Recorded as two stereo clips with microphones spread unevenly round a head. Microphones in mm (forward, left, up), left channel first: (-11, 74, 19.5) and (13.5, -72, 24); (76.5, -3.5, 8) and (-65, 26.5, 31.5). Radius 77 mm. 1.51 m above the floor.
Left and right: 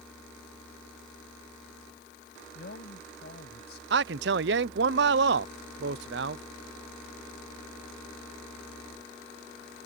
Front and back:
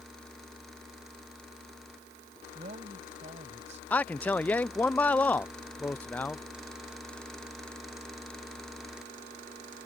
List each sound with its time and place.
2.5 s a man speaking: 125° left
3.9 s a man speaking: 90° right